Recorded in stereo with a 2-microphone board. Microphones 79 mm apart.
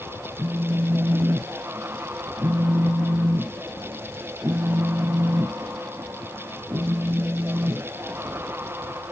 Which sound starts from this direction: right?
A phone buzzing, at 0.4 s.